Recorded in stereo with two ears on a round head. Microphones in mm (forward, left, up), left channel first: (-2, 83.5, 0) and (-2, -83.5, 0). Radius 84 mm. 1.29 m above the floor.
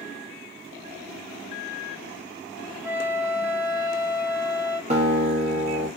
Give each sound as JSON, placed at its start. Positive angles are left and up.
{"t": 2.8, "sound": "a flute", "side_deg": -10, "distance_m": 0.6}
{"t": 4.9, "sound": "a guitar", "side_deg": -35, "distance_m": 0.8}